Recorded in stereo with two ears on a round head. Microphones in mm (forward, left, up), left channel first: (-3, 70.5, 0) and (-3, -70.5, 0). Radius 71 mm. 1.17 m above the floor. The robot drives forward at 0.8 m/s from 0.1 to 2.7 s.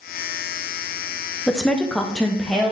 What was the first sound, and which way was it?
A woman speaking, 5° left (ahead or behind).